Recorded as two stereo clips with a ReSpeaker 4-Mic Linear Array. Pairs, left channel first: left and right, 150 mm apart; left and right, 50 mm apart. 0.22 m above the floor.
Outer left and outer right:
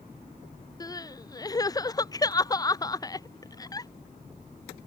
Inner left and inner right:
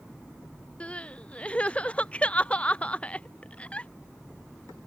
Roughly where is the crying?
Left.